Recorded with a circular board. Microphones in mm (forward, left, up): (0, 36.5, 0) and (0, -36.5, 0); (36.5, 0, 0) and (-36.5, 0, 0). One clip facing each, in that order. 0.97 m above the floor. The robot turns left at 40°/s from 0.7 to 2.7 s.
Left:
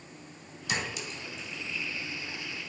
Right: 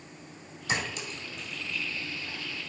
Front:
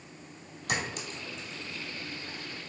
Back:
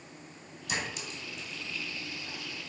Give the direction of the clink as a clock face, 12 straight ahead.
1 o'clock.